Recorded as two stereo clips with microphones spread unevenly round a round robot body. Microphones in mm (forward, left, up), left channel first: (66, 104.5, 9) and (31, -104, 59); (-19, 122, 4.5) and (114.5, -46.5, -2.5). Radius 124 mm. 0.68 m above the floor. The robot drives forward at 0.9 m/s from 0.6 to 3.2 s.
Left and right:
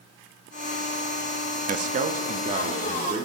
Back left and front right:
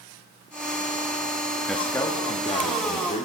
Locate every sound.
1.7 s a man speaking: 140° right, 0.8 m; by 3.2 s 170° right, 1.8 m